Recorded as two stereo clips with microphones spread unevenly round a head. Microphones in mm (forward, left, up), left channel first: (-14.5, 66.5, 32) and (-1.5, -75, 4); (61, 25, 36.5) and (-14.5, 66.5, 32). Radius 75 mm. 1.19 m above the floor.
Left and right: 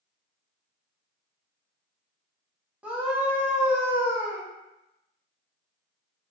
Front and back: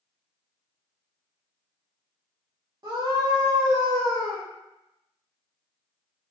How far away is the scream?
About 0.9 m.